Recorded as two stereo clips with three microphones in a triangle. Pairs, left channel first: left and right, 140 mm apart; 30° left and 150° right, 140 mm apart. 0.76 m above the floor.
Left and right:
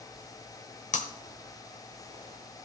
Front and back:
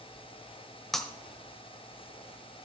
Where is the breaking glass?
120° left, 1.2 m.